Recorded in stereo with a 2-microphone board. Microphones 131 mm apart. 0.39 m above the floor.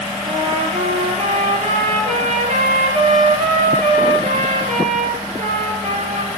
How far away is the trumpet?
About 7 m.